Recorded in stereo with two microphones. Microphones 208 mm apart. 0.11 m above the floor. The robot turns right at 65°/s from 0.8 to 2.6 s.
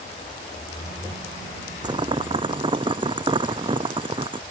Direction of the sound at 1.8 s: 20° right (ahead or behind).